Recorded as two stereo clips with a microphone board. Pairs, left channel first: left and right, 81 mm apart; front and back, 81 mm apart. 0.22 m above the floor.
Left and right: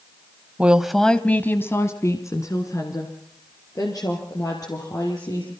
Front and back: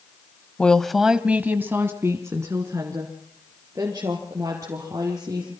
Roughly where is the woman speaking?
Ahead right.